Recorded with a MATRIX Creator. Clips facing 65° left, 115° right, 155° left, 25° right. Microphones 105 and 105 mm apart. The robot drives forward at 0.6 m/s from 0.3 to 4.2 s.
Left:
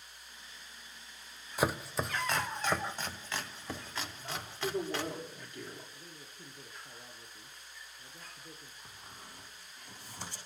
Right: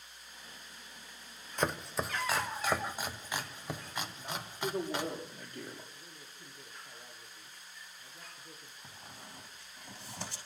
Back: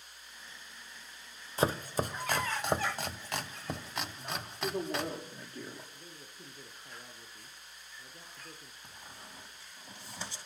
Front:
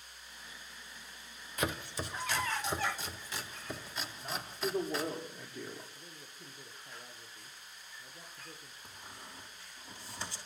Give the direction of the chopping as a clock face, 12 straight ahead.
7 o'clock.